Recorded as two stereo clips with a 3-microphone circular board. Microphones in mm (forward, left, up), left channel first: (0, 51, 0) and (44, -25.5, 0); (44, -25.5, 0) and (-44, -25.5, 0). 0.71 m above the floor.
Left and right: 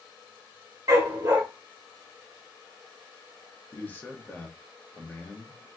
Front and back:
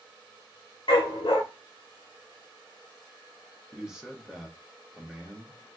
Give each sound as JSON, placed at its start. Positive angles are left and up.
{"t": 0.9, "sound": "a dog barking", "azimuth_deg": -15, "distance_m": 0.9}
{"t": 3.7, "sound": "a man speaking", "azimuth_deg": 110, "distance_m": 0.6}